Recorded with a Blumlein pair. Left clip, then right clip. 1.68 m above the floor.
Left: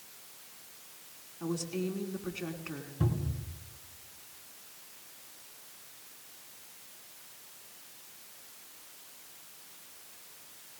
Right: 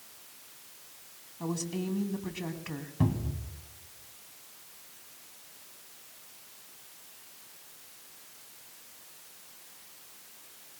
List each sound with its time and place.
1.4 s a woman speaking: 30° right, 2.5 m
3.0 s a cupboard door: 60° right, 2 m